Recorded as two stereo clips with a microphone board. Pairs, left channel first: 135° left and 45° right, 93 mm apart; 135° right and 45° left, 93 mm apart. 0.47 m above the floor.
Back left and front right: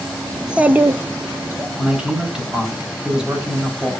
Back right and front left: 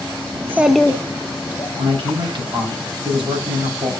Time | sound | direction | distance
0.3 | a child speaking | 40° left | 0.5 m
1.8 | a man speaking | 35° left | 3 m